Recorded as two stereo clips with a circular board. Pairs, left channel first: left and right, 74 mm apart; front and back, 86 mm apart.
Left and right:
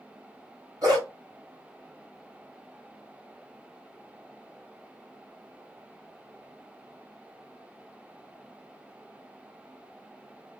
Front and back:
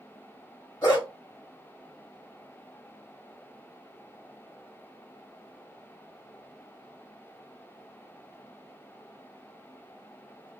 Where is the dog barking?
50° right, 2 m.